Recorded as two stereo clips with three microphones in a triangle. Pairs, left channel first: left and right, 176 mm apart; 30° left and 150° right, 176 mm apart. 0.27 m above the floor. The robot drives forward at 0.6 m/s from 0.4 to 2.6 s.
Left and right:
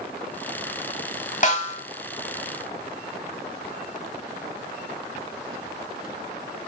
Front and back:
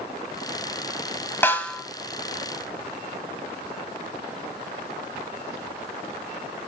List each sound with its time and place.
1.4 s a snare drum: 100° left, 1.3 m; by 1.8 s 115° left, 1.4 m